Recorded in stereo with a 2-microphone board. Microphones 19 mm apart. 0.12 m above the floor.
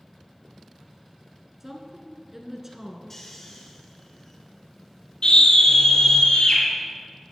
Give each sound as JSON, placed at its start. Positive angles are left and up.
{"t": 1.6, "sound": "a woman speaking", "side_deg": -15, "distance_m": 1.6}
{"t": 3.1, "sound": "snoring", "side_deg": 20, "distance_m": 3.0}
{"t": 5.2, "sound": "a scream", "side_deg": 55, "distance_m": 4.5}